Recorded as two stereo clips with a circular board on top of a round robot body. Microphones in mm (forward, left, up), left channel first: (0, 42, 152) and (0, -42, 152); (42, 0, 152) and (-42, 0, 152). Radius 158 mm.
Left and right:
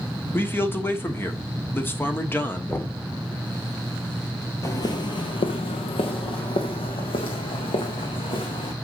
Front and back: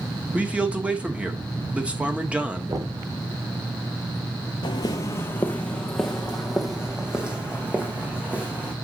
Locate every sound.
0.3 s a man speaking: 120° left, 1.4 m
2.7 s knocking: 150° left, 1.2 m
4.6 s footsteps: 35° left, 0.6 m; by 8.7 s 105° left, 2.5 m